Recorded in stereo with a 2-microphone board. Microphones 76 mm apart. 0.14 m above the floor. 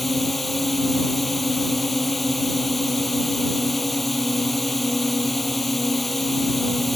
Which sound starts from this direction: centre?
A drone, at 0.0 s.